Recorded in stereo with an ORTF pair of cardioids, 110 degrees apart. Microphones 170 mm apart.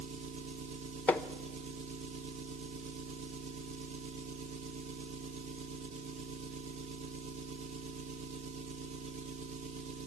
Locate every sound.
0.0 s an engine running: 45° right, 1.5 m
1.1 s hammering: 10° left, 1.0 m